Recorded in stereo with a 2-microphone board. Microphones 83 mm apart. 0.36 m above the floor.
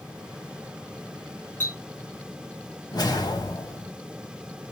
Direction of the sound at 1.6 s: 25° left (ahead or behind).